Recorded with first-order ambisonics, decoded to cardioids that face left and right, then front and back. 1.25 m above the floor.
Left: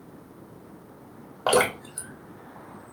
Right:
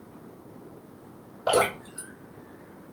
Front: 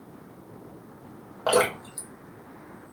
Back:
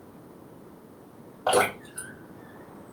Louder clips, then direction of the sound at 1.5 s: Left 1 dB, even; 70° left.